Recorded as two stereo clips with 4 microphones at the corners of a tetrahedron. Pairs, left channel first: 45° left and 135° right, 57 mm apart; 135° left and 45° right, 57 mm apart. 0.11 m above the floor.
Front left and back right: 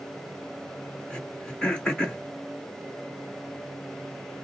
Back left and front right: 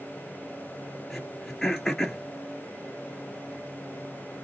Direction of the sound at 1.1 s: 60° left.